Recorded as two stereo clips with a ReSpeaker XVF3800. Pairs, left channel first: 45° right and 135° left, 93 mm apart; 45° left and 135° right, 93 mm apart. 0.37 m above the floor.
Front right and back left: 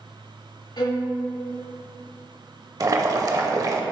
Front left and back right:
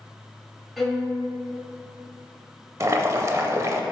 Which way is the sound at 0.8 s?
45° right.